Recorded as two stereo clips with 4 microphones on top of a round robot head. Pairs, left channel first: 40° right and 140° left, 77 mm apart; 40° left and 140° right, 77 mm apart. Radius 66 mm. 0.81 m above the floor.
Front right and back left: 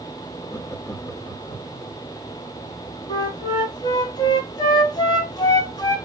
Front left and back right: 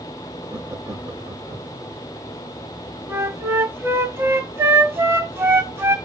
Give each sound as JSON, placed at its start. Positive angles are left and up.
{"t": 0.5, "sound": "laughter", "azimuth_deg": -90, "distance_m": 1.6}
{"t": 3.1, "sound": "a flute", "azimuth_deg": -80, "distance_m": 1.9}